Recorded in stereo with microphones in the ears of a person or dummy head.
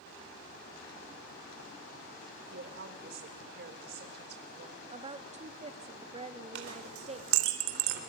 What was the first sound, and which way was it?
A woman speaking, 55° right (ahead or behind).